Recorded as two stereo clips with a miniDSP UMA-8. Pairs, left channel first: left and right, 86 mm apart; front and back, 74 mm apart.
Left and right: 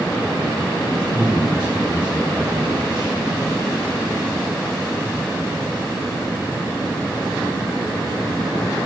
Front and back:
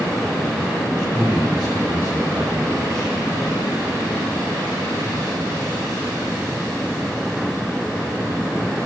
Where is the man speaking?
80° right, 3 m.